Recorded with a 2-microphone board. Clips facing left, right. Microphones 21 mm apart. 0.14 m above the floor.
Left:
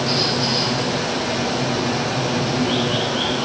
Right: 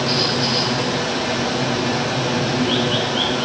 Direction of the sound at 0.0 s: Centre (ahead or behind).